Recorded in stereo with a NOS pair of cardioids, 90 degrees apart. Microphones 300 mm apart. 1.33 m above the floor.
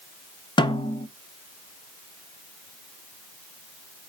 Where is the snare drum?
15° left, 1.2 m.